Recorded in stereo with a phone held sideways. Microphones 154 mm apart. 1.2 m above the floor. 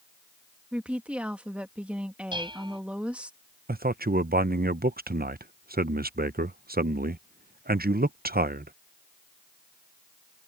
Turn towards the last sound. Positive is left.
turn(degrees=-75)  # may be behind; listen again after turning